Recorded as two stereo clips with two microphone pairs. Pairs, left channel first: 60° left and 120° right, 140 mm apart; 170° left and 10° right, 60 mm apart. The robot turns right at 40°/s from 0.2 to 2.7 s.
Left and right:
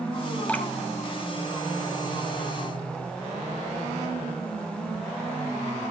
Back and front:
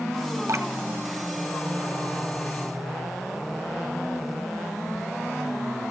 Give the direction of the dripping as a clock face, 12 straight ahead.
1 o'clock.